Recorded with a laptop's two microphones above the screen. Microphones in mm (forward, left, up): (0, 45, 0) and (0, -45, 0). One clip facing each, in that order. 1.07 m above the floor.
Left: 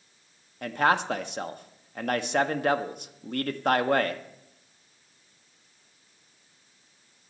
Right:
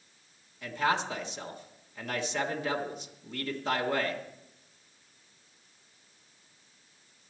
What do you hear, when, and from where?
0.6 s a man speaking: 55° left (ahead or behind), 1.2 m